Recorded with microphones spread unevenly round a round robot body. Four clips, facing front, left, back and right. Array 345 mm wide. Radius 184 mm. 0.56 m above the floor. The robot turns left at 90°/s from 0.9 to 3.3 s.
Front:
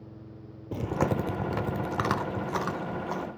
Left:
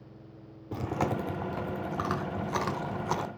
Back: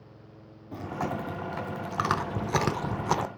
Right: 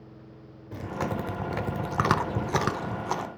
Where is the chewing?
20° left, 0.9 m; by 3.3 s 165° left, 0.9 m.